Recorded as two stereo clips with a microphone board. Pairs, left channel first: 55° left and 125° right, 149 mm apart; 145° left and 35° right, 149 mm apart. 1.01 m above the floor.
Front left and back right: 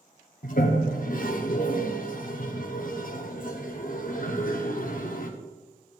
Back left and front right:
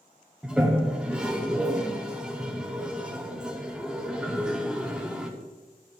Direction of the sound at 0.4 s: 50° left.